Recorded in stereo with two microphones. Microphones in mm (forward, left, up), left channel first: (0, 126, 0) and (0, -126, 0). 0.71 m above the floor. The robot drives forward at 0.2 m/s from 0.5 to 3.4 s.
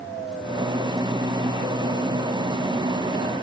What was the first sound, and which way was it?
Only background noise.